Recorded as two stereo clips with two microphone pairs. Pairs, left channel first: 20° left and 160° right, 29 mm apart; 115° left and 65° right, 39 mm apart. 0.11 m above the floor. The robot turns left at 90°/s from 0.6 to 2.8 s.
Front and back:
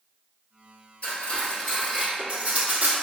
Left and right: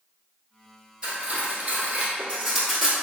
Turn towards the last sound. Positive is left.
turn(degrees=-165)